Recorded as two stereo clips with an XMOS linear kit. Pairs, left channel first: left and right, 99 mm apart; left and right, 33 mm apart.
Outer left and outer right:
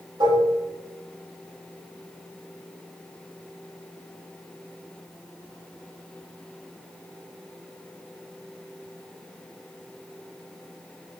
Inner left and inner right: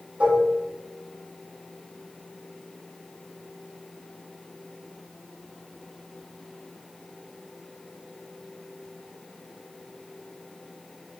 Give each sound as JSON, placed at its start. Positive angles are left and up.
{"t": 0.2, "sound": "dishes clattering", "side_deg": -55, "distance_m": 3.5}